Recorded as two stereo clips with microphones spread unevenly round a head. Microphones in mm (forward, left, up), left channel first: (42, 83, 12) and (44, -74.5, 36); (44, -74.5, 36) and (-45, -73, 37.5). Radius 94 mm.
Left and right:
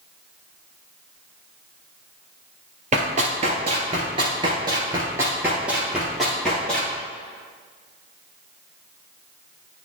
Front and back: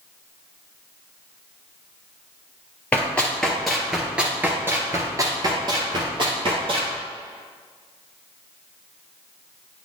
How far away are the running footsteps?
About 2 m.